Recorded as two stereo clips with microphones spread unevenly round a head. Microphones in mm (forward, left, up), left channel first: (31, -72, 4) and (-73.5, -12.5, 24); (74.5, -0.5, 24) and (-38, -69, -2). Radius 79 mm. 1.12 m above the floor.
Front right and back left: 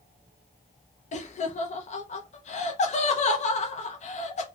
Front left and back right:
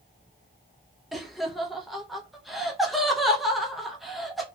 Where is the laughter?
60° right, 0.5 m.